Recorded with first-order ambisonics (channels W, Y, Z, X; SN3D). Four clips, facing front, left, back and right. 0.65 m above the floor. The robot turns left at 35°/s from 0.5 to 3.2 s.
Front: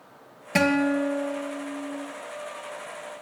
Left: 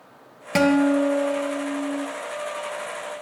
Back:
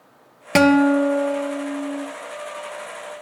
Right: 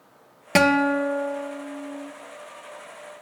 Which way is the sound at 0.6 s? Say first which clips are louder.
Left 1 dB, back 7 dB; 160° right.